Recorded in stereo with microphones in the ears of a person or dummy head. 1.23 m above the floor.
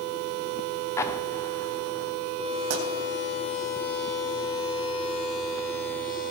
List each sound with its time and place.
1.0 s an explosion: 20° left (ahead or behind), 0.7 m
2.7 s a pop: 60° right (ahead or behind), 3.5 m